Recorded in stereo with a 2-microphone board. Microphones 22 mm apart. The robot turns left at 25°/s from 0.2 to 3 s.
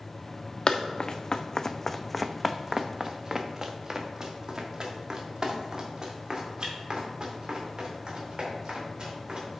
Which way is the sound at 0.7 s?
50° left (ahead or behind).